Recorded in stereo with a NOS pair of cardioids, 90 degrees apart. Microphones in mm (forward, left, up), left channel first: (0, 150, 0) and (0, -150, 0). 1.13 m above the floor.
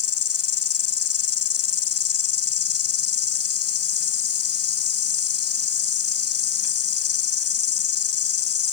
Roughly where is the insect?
Ahead left.